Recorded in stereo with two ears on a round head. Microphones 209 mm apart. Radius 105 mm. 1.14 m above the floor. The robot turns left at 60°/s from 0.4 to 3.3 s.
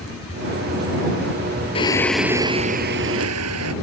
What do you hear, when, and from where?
1.8 s singing: 25° left; by 3.7 s 70° right